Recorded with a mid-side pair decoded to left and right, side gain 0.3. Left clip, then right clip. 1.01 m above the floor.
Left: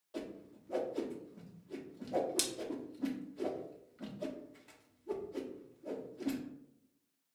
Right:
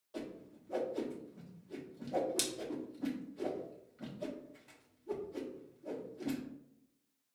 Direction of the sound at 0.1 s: 15° left.